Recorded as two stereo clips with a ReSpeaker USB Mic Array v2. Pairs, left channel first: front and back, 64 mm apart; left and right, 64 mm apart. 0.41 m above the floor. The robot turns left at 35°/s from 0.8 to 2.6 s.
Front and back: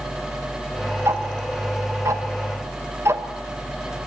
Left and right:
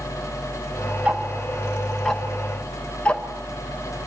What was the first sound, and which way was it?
Ticking, 145° right.